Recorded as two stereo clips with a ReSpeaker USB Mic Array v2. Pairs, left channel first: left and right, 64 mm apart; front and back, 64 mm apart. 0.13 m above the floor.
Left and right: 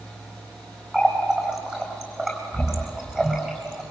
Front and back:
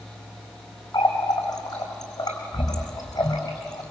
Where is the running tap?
10° right, 4.5 m.